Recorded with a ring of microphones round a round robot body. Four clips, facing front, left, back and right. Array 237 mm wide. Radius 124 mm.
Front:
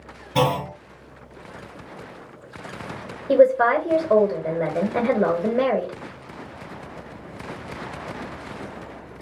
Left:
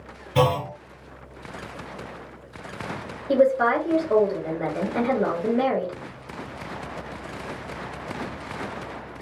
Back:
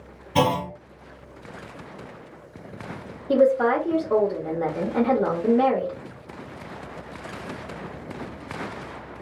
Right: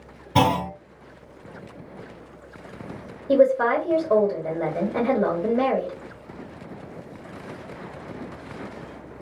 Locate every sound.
0.3 s a clunk: 95° right, 1.4 m
3.3 s a woman speaking: 20° right, 1.4 m